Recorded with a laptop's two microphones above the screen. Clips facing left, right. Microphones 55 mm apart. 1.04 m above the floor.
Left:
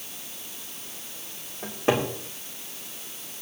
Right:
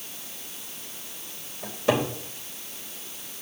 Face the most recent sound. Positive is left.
turn(degrees=35)  # may be behind; listen again after turning